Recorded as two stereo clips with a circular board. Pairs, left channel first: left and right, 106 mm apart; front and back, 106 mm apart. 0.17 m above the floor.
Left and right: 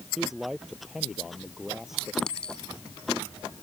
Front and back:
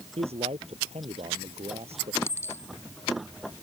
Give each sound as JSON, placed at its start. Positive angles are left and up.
{"t": 0.2, "sound": "a man speaking", "azimuth_deg": -175}
{"t": 2.2, "sound": "a clink", "azimuth_deg": 20}